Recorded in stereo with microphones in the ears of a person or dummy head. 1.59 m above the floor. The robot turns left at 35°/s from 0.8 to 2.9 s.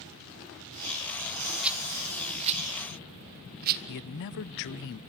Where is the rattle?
5° right (ahead or behind), 1.7 m; by 3.8 s 50° right (ahead or behind), 1.7 m.